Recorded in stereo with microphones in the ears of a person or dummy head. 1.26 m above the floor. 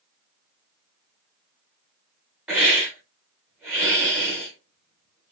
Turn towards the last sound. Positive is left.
turn(degrees=0)  # may be behind; listen again after turning